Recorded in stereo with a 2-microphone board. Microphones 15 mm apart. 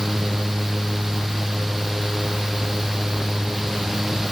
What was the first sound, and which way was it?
Only background noise.